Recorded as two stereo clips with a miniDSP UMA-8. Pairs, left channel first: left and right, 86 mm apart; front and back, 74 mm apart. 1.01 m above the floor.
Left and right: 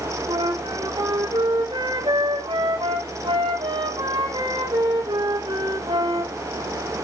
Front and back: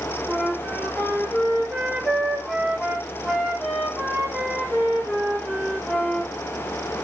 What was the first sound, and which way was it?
A flute, 105° right.